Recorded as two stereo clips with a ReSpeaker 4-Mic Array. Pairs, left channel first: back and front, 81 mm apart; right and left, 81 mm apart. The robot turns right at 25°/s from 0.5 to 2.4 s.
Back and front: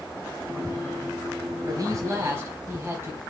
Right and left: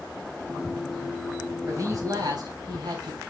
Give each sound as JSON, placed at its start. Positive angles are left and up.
{"t": 1.7, "sound": "a man speaking", "azimuth_deg": 40, "distance_m": 4.0}